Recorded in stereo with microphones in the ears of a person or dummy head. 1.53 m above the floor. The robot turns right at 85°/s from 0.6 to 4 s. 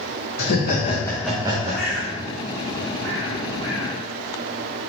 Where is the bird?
Centre (ahead or behind), 1.1 m; by 4.0 s 10° left (ahead or behind), 1.1 m.